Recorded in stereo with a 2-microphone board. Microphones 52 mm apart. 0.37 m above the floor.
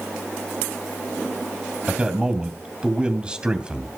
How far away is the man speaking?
About 2.5 m.